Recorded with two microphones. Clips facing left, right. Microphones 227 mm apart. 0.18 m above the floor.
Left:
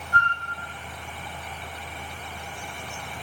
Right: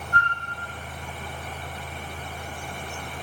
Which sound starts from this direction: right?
A flute, at 0.1 s.